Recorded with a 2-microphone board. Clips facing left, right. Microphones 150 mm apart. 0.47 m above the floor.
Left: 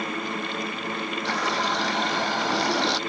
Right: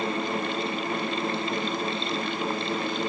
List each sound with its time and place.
1.2 s a running tap: 85° left